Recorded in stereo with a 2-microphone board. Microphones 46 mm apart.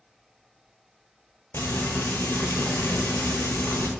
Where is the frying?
65° left (ahead or behind), 0.9 m.